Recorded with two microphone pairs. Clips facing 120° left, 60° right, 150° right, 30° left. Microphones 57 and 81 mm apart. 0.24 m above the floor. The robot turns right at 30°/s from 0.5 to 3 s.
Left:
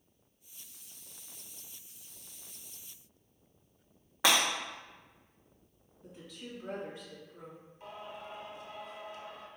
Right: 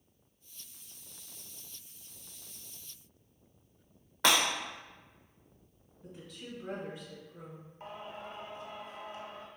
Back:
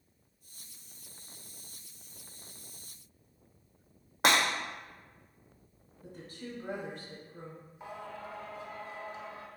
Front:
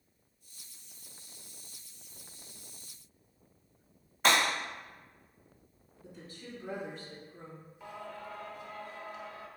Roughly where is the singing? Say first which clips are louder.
Right 1 dB, back 1 dB; right.